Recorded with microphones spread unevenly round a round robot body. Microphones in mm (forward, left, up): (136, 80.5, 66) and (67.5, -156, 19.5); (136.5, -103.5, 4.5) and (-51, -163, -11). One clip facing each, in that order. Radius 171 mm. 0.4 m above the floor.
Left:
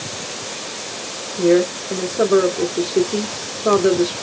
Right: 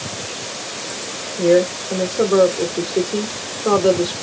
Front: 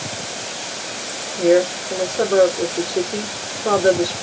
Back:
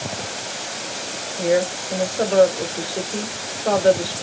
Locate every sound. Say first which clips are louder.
1.4 s a woman speaking: even, front 5 dB; 5° left, 1.2 m